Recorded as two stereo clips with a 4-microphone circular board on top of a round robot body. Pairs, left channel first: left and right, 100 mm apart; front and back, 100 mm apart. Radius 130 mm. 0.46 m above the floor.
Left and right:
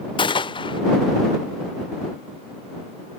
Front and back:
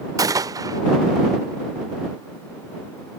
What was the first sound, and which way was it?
A gunshot, 125° left.